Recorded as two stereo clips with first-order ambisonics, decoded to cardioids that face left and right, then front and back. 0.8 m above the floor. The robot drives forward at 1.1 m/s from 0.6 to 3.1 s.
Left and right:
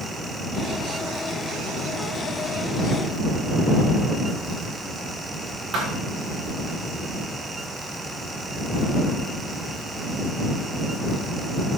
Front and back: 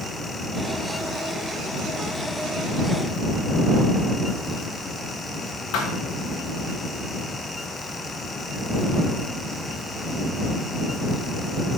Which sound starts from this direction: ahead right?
A thud, at 5.7 s.